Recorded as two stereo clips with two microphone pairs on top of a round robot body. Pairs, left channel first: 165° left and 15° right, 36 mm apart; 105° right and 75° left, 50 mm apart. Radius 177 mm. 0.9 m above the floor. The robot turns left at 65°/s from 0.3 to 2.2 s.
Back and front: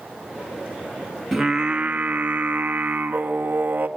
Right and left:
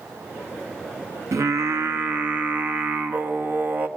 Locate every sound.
1.3 s singing: 75° left, 1.7 m; by 3.9 s 20° left, 1.7 m